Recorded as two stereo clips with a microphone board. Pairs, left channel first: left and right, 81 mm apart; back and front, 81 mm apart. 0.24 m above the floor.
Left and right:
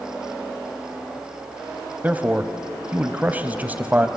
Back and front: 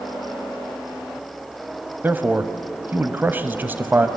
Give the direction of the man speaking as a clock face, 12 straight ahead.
1 o'clock.